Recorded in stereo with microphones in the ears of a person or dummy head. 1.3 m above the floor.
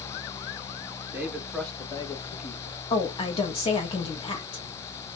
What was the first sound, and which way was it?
A man speaking, 10° right (ahead or behind).